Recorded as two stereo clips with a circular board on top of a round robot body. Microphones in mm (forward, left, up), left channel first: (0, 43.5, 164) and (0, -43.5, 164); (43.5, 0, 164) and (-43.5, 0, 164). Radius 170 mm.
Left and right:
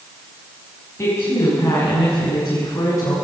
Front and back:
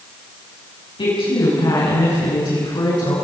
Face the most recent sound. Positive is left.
turn(degrees=35)